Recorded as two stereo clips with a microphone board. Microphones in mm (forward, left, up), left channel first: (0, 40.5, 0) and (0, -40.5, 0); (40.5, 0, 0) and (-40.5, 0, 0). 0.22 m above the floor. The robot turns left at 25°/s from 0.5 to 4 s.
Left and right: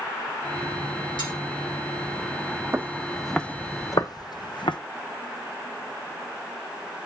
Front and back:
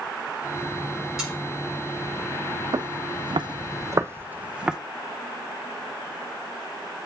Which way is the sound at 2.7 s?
150° right.